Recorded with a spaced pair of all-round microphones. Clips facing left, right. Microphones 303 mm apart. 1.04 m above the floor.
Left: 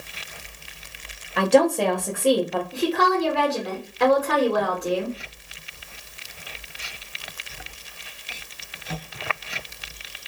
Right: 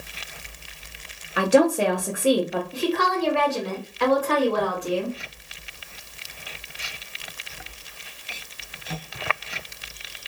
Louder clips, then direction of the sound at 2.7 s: Left 3 dB; 50° left (ahead or behind).